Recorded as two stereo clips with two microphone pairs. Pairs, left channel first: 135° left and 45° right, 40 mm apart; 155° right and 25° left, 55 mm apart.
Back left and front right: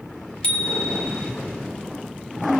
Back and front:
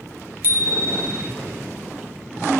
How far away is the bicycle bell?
About 2.5 m.